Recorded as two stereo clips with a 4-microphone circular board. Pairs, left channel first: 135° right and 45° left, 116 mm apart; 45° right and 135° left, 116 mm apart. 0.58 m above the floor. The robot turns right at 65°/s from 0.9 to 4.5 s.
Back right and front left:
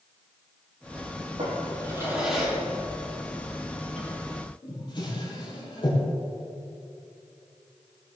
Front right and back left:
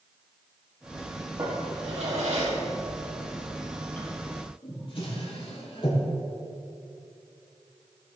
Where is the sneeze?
No sneeze in this recording.